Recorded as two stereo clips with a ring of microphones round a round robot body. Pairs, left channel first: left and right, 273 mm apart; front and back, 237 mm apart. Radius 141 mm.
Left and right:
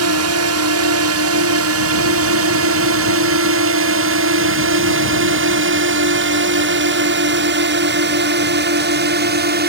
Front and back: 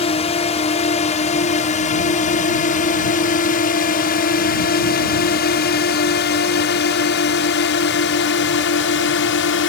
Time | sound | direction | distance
0.0 | a drone | 65° right | ?